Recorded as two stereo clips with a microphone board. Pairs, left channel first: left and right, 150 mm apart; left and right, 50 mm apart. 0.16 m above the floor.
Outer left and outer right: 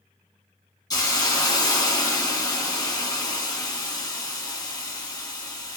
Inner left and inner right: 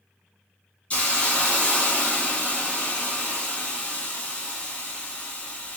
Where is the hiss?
25° left (ahead or behind), 1.2 m.